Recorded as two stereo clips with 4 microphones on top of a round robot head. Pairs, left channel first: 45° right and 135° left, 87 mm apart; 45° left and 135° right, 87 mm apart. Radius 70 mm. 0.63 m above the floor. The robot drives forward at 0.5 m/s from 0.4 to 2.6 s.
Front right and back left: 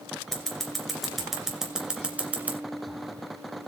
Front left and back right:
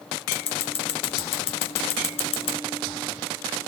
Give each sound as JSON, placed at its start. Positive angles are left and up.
{"t": 0.3, "sound": "scissors", "azimuth_deg": 40, "distance_m": 2.5}